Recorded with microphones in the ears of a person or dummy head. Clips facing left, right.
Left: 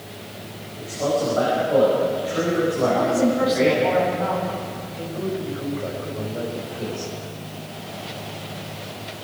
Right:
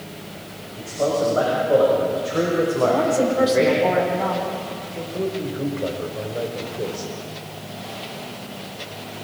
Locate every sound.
0.8 s a man speaking: 50° right (ahead or behind), 6 m; by 3.8 s 45° right (ahead or behind), 4.5 m
2.8 s a woman speaking: 55° right (ahead or behind), 6 m
5.1 s a man speaking: 50° right (ahead or behind), 5.5 m